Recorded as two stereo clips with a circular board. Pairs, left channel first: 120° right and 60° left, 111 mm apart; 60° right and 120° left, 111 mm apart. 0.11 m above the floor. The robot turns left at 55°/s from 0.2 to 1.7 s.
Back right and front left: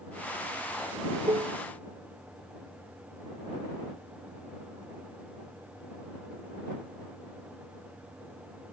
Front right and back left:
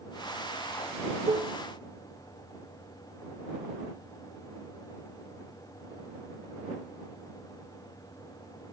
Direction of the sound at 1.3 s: 85° left.